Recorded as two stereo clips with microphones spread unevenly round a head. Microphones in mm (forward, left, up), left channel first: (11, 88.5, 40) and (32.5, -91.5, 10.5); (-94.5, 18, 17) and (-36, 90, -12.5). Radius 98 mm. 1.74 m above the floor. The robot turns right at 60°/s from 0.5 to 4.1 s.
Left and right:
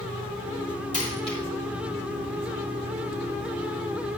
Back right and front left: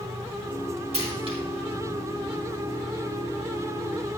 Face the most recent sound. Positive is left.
turn(degrees=-120)